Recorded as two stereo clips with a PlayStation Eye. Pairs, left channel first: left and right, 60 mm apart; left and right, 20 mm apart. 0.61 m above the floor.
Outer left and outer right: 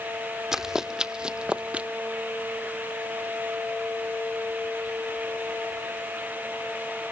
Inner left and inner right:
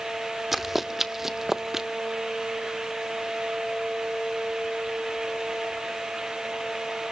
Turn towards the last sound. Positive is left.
turn(degrees=-25)  # may be behind; listen again after turning